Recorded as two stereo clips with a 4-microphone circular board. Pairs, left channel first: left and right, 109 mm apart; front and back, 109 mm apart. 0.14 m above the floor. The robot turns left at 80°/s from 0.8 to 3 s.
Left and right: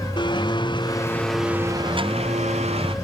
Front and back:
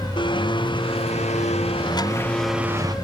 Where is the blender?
45° left; by 3.0 s 130° right.